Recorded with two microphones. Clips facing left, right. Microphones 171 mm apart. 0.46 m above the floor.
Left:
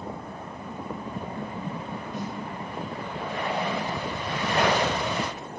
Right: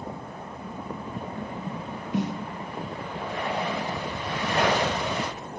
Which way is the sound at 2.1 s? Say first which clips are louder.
Right 8 dB; 80° right.